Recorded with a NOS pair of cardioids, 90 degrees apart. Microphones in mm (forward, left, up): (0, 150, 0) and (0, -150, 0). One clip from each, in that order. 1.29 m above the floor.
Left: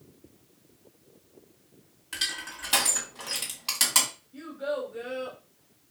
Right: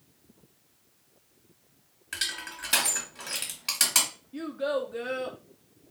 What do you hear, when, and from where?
2.1 s crushing: 10° right, 1.8 m
4.3 s a child speaking: 45° right, 0.6 m